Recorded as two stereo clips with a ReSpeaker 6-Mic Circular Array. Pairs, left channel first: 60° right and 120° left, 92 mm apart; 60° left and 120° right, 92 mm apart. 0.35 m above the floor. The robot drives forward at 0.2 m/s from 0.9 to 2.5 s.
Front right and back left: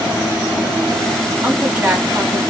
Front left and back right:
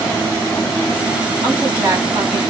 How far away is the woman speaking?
About 2.5 m.